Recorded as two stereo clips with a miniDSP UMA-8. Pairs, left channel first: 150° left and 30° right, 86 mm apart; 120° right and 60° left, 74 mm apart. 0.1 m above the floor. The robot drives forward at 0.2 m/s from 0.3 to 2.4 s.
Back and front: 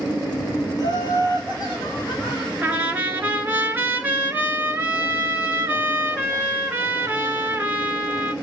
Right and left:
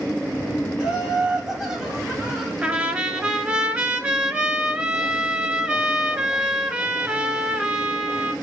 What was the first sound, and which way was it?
Laughter, 135° left.